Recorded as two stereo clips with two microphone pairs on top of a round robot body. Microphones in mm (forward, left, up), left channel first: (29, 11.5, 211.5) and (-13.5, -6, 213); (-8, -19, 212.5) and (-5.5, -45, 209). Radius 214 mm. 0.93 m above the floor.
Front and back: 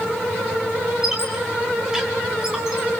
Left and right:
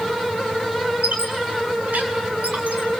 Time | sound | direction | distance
1.0 | a squeak | 85° right | 3.5 m